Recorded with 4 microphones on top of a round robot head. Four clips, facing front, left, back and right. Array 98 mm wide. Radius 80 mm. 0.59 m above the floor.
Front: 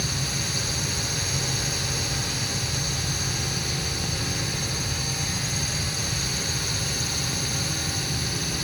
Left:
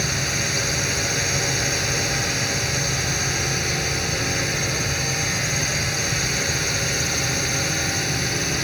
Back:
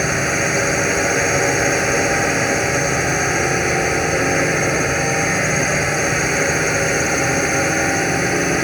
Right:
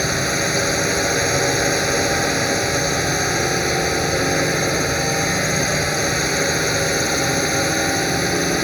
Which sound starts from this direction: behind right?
A drone, at 0.0 s.